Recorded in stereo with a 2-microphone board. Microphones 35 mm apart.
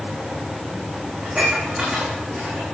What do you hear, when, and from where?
1.2 s dishes clattering: 30° right (ahead or behind), 6.5 m